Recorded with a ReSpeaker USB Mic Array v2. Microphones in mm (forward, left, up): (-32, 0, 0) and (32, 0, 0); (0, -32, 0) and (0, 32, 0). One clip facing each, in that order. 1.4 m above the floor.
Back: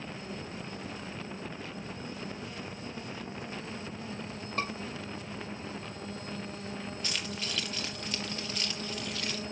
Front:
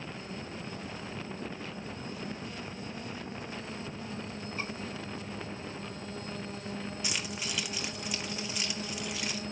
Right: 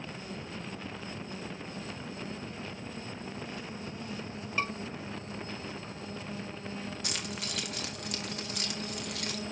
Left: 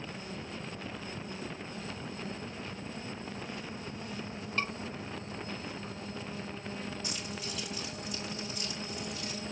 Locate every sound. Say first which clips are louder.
4.6 s a scream: back 5 dB, right 2 dB; 170° right, 6 m
7.0 s keys jangling: even, right 1 dB; 75° right, 2 m